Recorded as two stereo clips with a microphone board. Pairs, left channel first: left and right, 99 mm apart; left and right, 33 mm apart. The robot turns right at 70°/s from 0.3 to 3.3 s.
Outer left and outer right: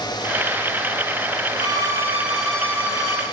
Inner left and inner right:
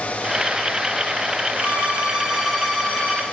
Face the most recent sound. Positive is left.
turn(degrees=60)